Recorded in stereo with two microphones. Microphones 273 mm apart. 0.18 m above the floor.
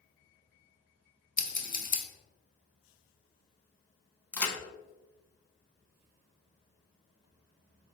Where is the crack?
5° left (ahead or behind), 0.7 m.